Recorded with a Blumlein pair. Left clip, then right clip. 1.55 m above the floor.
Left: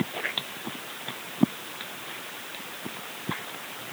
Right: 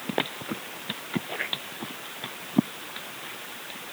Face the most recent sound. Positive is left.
No sound to turn to.